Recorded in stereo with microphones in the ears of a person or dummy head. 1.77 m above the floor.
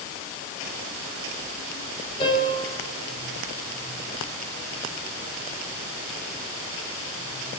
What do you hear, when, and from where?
2.2 s a piano: 30° left (ahead or behind), 8 m